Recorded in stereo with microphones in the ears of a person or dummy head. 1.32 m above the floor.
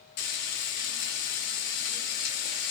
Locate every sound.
0.2 s frying: 50° left (ahead or behind), 0.7 m